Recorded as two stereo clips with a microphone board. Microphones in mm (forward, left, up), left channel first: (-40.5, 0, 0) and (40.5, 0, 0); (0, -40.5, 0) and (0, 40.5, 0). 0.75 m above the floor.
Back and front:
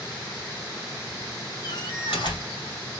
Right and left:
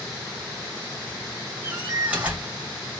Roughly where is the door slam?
Behind.